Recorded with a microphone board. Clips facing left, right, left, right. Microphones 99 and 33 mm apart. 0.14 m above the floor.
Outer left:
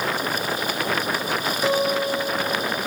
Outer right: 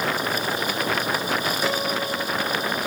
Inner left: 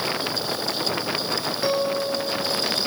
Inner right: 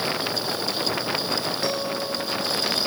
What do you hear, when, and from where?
1.6 s a guitar: 20° left (ahead or behind), 2.5 m